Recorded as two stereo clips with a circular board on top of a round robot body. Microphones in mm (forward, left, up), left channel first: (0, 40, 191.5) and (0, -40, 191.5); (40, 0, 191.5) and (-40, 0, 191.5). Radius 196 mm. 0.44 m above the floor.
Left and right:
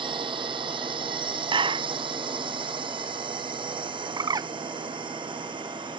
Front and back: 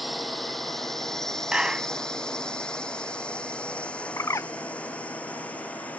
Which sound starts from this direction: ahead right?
A bird, at 4.2 s.